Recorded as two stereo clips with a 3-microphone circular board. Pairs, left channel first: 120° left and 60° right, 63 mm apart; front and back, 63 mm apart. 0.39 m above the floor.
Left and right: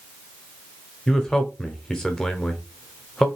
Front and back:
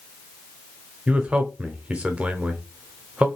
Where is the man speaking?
Straight behind, 0.8 m.